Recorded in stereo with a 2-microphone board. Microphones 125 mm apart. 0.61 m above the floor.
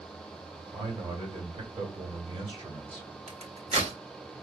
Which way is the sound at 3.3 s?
65° right (ahead or behind).